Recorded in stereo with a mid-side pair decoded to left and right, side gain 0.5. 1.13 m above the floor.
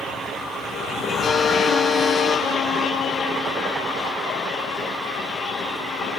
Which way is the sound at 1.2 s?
45° left.